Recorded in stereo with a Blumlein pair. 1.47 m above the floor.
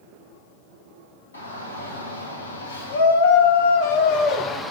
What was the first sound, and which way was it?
A shout, 70° left.